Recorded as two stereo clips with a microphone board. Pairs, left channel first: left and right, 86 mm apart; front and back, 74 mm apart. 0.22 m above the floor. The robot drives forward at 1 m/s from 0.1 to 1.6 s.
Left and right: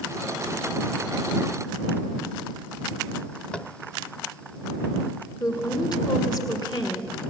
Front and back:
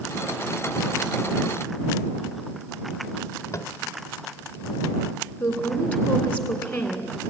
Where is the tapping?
20° left, 0.6 m.